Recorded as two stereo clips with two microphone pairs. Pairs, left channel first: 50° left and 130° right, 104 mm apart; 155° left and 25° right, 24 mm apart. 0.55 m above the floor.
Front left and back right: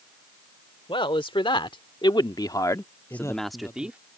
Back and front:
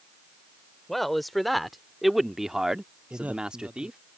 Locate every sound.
0.9 s a man speaking: 75° left; by 4.0 s 55° right
3.1 s a man speaking: 10° right